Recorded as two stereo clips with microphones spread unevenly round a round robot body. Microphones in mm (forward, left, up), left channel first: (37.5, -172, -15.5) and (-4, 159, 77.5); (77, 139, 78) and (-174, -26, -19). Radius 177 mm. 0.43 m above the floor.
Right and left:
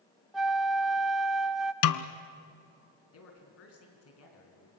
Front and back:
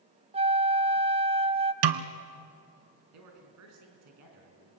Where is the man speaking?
125° right, 4 m.